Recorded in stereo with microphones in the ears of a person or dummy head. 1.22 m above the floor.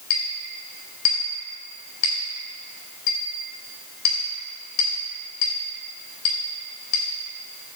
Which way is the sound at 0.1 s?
85° left.